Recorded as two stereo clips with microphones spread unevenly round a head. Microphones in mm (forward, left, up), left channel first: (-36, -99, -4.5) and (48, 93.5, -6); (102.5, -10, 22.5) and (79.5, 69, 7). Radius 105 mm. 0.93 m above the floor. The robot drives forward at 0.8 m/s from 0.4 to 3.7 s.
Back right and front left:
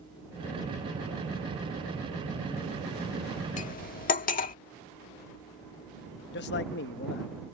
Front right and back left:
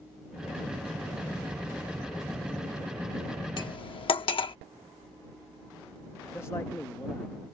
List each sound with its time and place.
3.6 s cutlery clinking: 55° right; by 4.5 s 60° right
6.3 s a man speaking: 150° right